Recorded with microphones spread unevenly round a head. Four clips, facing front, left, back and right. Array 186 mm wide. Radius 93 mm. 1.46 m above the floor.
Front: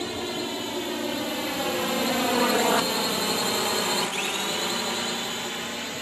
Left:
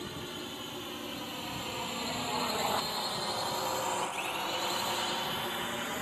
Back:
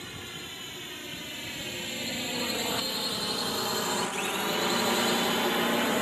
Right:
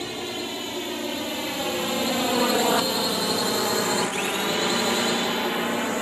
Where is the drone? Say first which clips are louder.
Right 10 dB, front 13 dB; 30° right; by 6.0 s 130° right.